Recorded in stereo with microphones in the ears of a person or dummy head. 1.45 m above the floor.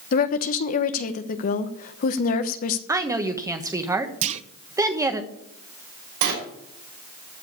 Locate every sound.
0.1 s a woman speaking: 50° left (ahead or behind), 1.0 m
2.9 s a woman speaking: 15° right (ahead or behind), 1.2 m
4.2 s a clunk: 35° right (ahead or behind), 0.7 m
6.2 s a sliding door: 75° right (ahead or behind), 6 m